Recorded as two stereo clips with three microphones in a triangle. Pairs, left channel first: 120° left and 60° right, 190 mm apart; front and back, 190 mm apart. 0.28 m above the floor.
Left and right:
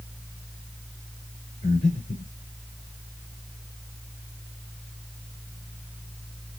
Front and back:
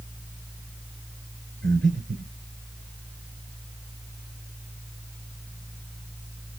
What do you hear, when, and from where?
1.6 s breathing: 175° left, 5 m